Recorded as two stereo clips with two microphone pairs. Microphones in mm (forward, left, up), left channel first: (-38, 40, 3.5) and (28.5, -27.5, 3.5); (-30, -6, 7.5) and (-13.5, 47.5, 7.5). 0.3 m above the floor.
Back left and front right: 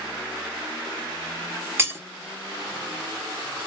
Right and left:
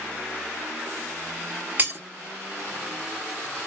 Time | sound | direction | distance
1.8 | breaking glass | 20° left | 0.9 m